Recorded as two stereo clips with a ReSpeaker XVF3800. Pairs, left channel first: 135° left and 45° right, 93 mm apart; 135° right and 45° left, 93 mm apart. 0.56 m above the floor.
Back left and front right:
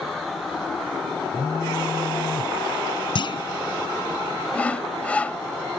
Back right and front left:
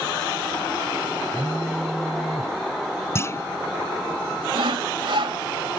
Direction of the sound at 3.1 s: 165° left.